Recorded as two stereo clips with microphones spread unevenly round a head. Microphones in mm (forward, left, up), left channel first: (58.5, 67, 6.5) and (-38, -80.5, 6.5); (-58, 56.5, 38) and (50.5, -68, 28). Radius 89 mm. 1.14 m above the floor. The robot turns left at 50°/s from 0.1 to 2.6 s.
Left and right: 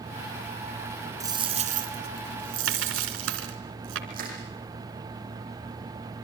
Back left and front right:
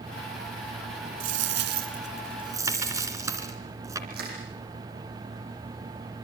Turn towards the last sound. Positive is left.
turn(degrees=-80)